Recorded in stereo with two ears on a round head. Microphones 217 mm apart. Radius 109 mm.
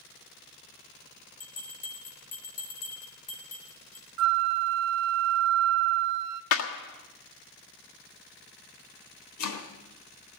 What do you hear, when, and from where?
1.4 s a bell: 35° left (ahead or behind), 3.5 m
4.2 s a flute: 65° right (ahead or behind), 0.7 m
6.5 s a clap: 60° left (ahead or behind), 1.5 m
9.4 s chopping: 75° left (ahead or behind), 3 m